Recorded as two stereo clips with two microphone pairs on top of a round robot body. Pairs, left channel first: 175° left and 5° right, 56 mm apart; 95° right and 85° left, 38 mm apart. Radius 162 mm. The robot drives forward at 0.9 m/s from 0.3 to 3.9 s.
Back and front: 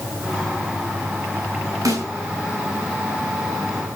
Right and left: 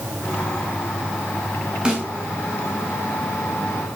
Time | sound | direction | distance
1.9 | a snare drum | 15° left | 6 m